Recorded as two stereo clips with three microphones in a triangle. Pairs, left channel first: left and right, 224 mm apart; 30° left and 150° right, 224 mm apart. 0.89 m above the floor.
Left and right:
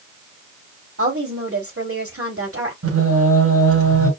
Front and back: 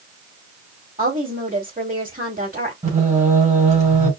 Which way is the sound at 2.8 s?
90° right.